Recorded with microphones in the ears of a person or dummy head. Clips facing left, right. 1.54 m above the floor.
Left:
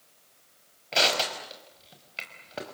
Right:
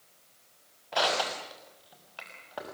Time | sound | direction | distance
0.9 | crushing | 20° left (ahead or behind) | 5.5 m